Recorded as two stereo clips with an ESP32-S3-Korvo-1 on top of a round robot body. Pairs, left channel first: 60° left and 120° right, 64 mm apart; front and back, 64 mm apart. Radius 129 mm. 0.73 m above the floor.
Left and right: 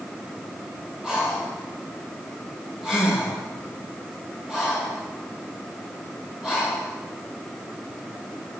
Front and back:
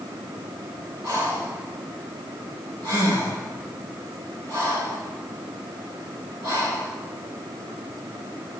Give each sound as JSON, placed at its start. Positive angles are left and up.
{"t": 1.0, "sound": "breathing", "azimuth_deg": 160, "distance_m": 5.0}